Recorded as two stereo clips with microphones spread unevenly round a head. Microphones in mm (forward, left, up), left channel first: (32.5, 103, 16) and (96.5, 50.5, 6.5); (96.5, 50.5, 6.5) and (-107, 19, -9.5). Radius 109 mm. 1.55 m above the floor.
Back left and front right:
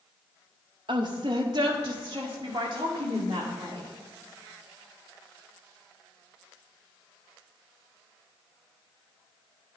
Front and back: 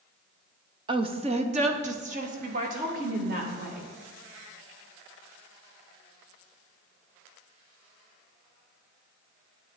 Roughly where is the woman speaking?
Right.